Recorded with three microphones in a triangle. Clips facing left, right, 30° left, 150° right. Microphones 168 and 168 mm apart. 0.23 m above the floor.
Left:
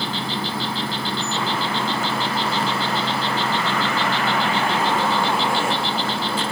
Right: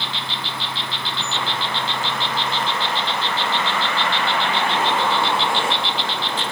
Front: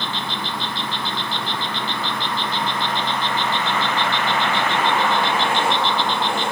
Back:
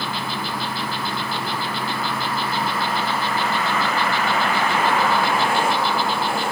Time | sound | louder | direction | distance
0.0 | an insect | left 5 dB, back 1 dB | 130° left | ?